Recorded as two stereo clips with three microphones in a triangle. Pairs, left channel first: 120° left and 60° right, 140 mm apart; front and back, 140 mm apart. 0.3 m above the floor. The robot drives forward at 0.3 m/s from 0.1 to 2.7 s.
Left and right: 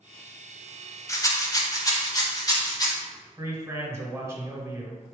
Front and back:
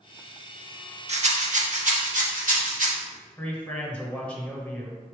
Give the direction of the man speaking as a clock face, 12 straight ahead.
2 o'clock.